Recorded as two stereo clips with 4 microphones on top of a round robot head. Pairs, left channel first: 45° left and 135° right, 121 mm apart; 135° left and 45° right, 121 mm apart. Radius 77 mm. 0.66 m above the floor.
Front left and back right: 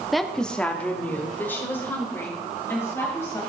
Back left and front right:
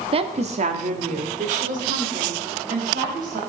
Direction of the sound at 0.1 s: 50° right.